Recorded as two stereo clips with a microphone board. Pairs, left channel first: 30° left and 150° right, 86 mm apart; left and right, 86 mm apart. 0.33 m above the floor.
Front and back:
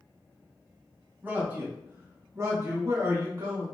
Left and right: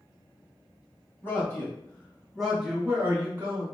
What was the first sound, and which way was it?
A man speaking, 145° left.